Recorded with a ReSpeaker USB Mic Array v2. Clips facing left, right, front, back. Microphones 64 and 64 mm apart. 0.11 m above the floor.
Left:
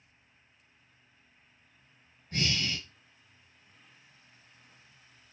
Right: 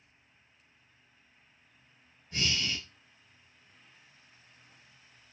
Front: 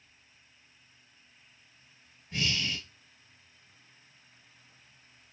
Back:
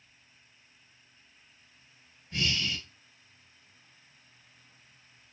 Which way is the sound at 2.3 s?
60° left.